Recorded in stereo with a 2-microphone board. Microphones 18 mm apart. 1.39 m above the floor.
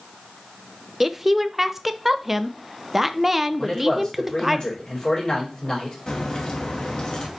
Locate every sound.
1.0 s a woman speaking: 15° right (ahead or behind), 0.7 m
3.6 s a man speaking: 40° left (ahead or behind), 4 m
6.1 s a crack: 40° left (ahead or behind), 2.5 m